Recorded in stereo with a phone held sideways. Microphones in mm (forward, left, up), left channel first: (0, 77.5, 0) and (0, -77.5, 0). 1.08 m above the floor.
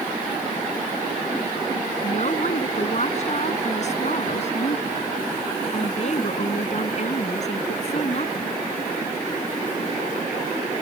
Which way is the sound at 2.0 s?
50° left (ahead or behind).